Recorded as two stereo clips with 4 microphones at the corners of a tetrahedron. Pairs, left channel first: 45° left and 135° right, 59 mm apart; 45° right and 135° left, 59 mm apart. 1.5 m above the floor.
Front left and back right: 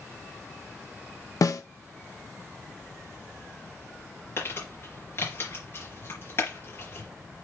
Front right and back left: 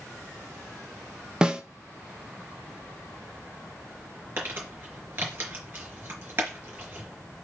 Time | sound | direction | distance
1.4 | a snare drum | 60° left | 0.7 m
4.4 | crumpling | 85° left | 4 m